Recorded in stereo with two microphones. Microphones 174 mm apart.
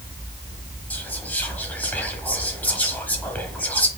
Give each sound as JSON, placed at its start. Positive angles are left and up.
{"t": 0.9, "sound": "whispering", "side_deg": 10, "distance_m": 0.9}